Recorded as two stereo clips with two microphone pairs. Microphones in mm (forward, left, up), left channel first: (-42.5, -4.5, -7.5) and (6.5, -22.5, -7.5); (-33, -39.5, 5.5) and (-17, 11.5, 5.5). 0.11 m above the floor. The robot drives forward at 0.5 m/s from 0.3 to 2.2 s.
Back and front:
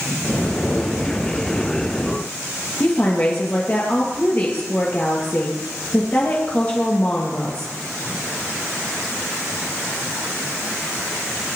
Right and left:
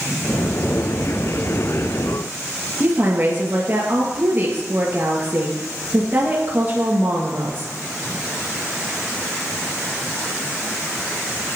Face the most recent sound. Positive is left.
turn(degrees=115)